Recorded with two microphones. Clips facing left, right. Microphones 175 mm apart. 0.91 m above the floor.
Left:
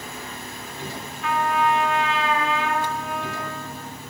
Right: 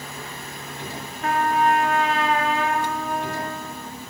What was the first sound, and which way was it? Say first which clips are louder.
A trumpet: right 2 dB; 45° right (ahead or behind).